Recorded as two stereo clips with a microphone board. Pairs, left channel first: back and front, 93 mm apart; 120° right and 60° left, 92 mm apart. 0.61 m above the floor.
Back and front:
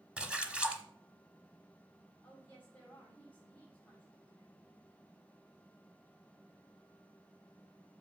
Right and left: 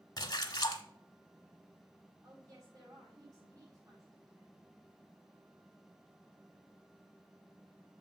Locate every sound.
0.2 s a splash: 80° right, 1.1 m
2.2 s a woman speaking: 100° left, 4.5 m